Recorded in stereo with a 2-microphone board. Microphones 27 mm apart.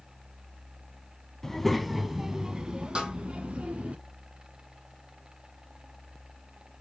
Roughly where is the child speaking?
Centre.